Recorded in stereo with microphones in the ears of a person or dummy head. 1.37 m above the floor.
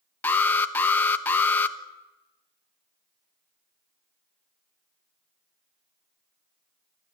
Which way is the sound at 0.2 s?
15° left (ahead or behind).